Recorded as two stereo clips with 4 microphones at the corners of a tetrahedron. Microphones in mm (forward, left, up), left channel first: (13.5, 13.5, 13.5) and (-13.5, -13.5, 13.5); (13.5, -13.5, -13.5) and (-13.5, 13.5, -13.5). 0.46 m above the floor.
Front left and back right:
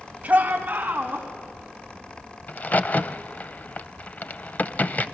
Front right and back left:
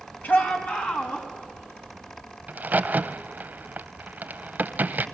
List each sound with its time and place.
0.2 s a shout: 85° right, 3 m; by 1.3 s 90° right, 4 m
2.5 s a crack: 90° left, 0.7 m